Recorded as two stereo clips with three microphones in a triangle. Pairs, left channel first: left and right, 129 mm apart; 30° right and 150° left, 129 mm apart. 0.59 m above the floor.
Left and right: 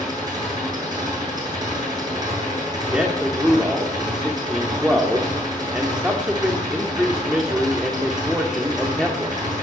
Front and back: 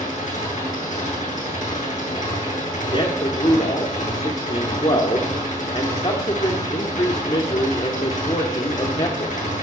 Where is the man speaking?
10° right, 1.7 m.